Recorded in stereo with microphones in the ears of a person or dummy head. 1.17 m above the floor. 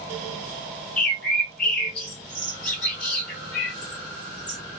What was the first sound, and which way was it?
A bird, 10° left (ahead or behind).